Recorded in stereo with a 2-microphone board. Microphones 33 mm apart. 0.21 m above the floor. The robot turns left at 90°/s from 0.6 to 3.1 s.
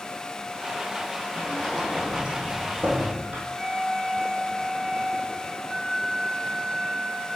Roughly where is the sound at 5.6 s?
Right.